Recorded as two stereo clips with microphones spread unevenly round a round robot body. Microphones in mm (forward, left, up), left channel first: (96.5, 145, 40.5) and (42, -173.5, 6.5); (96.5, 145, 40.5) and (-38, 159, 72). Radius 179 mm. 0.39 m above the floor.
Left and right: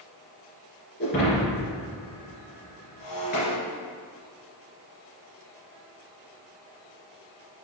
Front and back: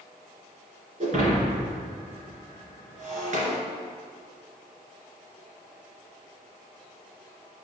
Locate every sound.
1.0 s breaking glass: 145° left, 2.5 m